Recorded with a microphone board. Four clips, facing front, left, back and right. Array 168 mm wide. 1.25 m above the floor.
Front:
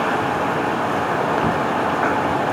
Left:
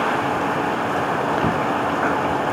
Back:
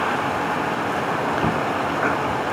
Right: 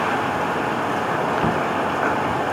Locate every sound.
Only background noise.